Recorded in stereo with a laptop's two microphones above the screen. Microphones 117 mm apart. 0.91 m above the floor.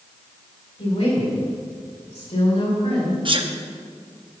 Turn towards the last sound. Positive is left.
turn(degrees=-45)  # may be behind; listen again after turning